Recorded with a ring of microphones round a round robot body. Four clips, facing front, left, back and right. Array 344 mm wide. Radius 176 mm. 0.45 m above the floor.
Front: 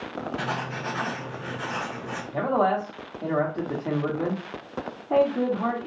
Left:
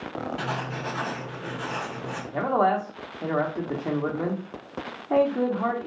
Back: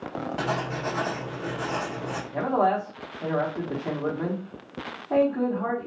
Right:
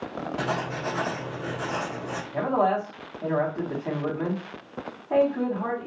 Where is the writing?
150° right, 1.0 m.